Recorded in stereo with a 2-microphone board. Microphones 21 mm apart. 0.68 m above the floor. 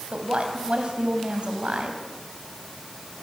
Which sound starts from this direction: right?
A woman speaking, at 0.1 s.